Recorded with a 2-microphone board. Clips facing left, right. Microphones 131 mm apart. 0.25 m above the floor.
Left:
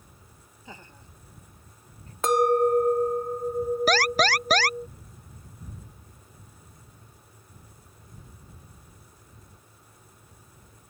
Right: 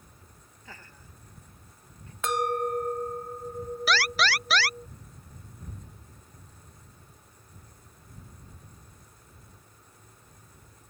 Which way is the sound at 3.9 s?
45° left (ahead or behind).